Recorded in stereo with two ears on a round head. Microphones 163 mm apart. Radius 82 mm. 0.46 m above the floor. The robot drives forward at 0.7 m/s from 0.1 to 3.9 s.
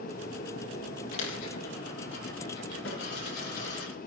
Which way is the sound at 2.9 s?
80° left.